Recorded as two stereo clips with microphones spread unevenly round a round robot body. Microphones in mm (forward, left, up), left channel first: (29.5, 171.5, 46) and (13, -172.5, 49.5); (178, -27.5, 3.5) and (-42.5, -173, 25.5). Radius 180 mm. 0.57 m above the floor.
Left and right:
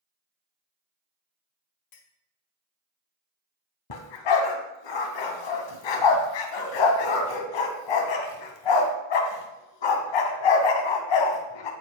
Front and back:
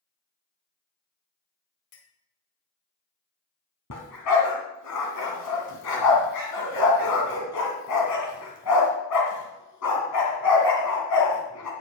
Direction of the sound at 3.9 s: 80° left.